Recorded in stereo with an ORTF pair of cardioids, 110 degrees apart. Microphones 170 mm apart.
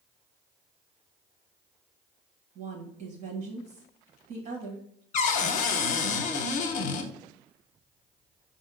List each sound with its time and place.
2.5 s a woman speaking: 65° right, 1.2 m
5.1 s a cupboard door: 45° left, 0.6 m